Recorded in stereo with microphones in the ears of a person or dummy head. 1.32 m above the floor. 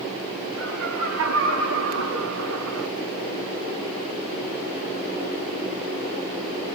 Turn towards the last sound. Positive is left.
turn(degrees=-70)  # may be behind; listen again after turning